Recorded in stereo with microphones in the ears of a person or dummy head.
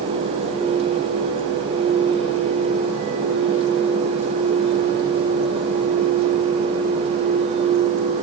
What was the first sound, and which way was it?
Only background noise.